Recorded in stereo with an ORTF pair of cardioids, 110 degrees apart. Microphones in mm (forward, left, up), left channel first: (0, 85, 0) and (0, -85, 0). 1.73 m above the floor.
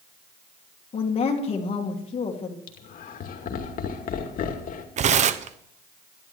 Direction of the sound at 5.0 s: 45° right.